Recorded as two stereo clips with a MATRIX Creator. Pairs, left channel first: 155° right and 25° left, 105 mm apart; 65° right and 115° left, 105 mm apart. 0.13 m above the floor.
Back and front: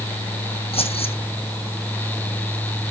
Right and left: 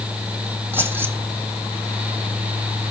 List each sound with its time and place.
0.7 s keys jangling: straight behind, 4.5 m